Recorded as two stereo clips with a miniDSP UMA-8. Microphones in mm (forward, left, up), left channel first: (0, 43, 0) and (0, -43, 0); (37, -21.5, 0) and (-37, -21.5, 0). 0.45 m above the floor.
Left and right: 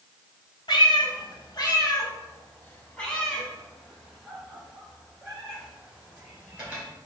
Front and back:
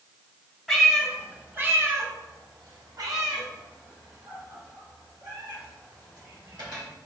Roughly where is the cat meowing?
Left.